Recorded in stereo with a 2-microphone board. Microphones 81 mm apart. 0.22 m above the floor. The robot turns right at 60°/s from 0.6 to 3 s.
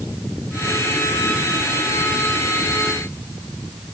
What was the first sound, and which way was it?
Only background noise.